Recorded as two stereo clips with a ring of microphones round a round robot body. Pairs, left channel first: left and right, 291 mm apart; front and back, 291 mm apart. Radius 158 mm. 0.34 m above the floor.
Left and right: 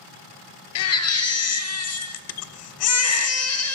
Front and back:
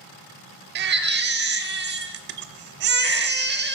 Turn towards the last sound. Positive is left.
turn(degrees=125)